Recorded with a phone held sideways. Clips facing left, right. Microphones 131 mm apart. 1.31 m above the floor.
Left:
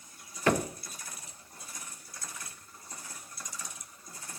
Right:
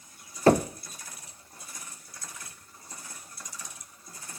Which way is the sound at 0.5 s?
35° right (ahead or behind).